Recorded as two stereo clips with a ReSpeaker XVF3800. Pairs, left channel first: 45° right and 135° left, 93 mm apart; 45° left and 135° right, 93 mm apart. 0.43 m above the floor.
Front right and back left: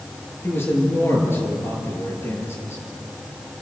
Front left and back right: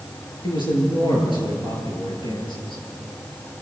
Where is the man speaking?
20° left, 7 m.